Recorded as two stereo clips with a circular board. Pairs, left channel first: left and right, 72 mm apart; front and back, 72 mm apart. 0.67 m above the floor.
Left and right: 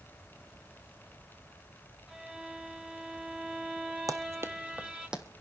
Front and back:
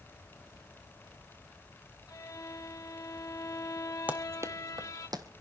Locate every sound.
2.1 s a violin: 15° right, 1.8 m
4.1 s running footsteps: 115° right, 1.2 m; by 5.2 s 170° right, 1.9 m